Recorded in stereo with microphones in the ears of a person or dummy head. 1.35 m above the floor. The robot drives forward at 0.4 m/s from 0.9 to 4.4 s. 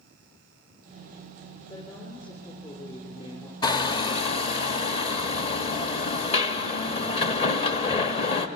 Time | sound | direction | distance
1.7 | a woman speaking | 25° left (ahead or behind) | 4 m
3.6 | hammering | 25° left (ahead or behind) | 1.2 m